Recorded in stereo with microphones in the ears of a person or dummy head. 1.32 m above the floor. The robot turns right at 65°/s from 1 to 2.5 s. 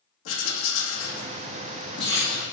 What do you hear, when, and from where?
0.2 s writing: 85° left, 2 m; by 2.4 s centre (ahead or behind), 2 m